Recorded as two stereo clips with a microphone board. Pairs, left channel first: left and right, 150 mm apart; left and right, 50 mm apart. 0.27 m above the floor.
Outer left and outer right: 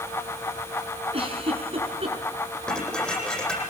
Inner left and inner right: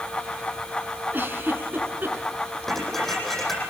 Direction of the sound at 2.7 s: 5° left (ahead or behind).